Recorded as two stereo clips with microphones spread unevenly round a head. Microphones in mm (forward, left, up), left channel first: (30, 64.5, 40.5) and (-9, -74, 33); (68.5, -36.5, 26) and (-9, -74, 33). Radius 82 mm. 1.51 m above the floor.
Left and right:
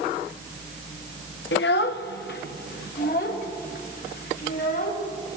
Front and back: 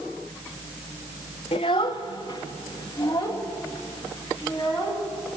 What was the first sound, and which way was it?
A child speaking, 75° left.